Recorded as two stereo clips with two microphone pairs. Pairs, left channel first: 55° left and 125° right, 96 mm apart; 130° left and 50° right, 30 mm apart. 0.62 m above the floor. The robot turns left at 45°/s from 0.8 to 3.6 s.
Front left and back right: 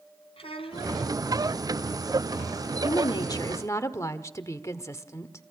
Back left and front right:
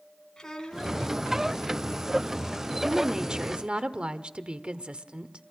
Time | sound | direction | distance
0.4 | a child speaking | 60° left | 3.5 m
2.8 | a woman speaking | 30° left | 1.4 m